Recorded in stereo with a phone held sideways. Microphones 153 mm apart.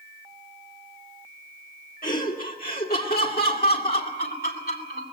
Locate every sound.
2.0 s laughter: 65° left (ahead or behind), 1.8 m; by 5.0 s 85° left, 3.5 m